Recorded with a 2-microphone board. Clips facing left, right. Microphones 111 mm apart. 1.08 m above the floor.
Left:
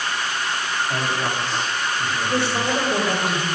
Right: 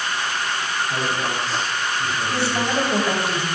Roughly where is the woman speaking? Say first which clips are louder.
Left 1 dB; left.